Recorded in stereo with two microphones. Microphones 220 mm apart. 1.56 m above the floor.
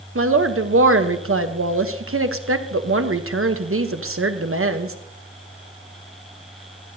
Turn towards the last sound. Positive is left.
turn(degrees=-75)  # may be behind; listen again after turning